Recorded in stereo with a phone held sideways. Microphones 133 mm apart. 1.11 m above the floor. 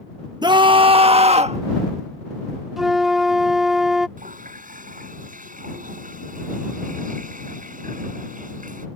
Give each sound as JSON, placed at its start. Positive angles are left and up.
{"t": 0.4, "sound": "a scream", "side_deg": -30}
{"t": 2.8, "sound": "a flute", "side_deg": 0}
{"t": 4.2, "sound": "a running tap", "side_deg": -85}